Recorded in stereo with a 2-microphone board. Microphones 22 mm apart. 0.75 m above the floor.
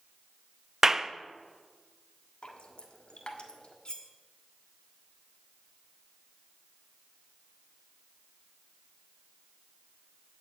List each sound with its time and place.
0.8 s a clap: 20° right (ahead or behind), 0.5 m
2.4 s dripping: 60° left (ahead or behind), 1.5 m
3.9 s cutlery clinking: 45° left (ahead or behind), 1.1 m